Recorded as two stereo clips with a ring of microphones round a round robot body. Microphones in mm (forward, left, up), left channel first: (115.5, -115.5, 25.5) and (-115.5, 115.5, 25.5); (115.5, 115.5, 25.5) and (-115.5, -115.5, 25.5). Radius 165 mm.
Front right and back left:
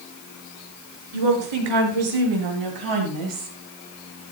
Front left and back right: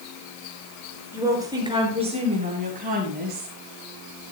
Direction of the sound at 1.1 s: 140° left.